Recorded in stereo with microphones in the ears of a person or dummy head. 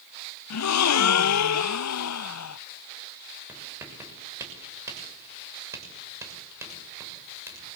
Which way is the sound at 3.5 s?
15° right (ahead or behind).